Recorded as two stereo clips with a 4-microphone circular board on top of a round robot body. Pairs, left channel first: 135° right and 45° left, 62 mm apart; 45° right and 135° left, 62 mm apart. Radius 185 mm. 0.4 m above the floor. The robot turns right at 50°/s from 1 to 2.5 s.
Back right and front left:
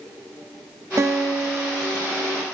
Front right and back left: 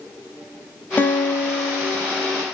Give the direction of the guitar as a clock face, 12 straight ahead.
12 o'clock.